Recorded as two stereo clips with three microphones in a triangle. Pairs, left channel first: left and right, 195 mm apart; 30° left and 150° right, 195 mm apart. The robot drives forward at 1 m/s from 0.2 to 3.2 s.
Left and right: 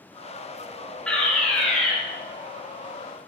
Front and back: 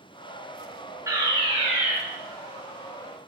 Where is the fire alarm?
170° left, 1.6 m; by 1.9 s 175° left, 2 m.